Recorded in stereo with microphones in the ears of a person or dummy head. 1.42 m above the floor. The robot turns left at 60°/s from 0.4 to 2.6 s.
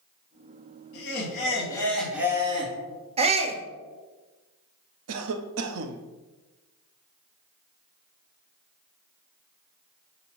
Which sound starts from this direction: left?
Laughter, at 0.9 s.